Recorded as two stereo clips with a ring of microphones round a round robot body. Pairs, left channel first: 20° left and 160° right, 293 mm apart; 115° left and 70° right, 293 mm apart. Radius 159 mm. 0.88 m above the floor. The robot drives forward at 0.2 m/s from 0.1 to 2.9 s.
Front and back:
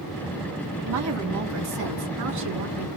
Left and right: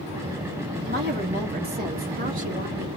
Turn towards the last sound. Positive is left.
turn(degrees=-130)